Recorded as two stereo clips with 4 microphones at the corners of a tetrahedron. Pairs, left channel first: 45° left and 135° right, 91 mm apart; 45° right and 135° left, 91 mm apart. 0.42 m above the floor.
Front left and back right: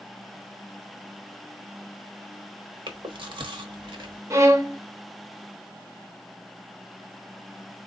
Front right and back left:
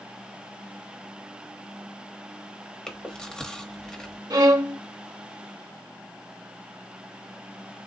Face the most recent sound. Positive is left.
turn(degrees=170)